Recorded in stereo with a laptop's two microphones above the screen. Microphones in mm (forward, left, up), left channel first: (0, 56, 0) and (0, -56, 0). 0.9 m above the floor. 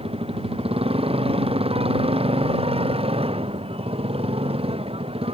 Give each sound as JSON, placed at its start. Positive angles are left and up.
{"t": 0.0, "sound": "a motorcycle", "side_deg": -55}